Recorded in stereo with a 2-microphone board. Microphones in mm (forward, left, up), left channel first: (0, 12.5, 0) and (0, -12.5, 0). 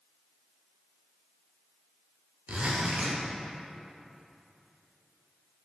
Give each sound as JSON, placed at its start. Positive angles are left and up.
{"t": 2.5, "sound": "a zipper", "side_deg": -55, "distance_m": 1.2}